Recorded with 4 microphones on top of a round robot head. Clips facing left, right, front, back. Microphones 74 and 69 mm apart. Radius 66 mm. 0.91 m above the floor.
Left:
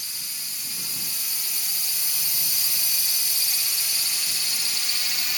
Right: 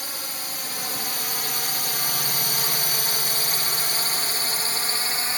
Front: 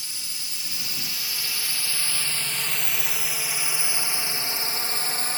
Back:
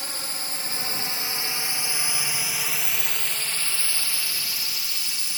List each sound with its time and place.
0.0 s a drone: 130° right; by 5.4 s 40° right